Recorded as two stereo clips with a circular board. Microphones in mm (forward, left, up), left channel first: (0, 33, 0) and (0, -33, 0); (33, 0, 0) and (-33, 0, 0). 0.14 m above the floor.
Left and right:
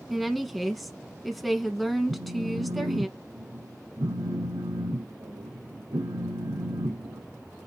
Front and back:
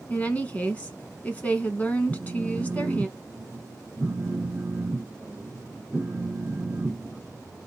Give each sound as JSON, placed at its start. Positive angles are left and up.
{"t": 0.1, "sound": "a woman speaking", "azimuth_deg": 5, "distance_m": 1.2}
{"t": 2.1, "sound": "a phone buzzing", "azimuth_deg": -105, "distance_m": 2.5}